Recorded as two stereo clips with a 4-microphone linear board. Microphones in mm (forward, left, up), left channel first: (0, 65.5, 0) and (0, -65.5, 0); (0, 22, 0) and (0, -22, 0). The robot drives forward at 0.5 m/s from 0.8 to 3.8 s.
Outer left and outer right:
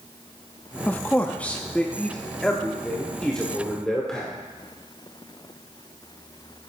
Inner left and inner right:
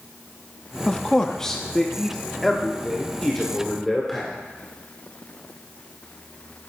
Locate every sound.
0.9 s a man speaking: 15° left (ahead or behind), 0.7 m; by 4.3 s 5° left (ahead or behind), 1.8 m